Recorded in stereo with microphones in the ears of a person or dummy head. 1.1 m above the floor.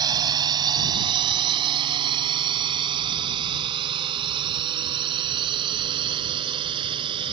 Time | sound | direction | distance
0.0 | a drone | 25° right (ahead or behind) | ?